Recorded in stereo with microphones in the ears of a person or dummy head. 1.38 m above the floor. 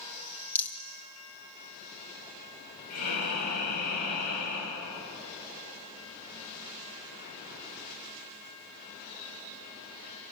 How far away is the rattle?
About 1.7 m.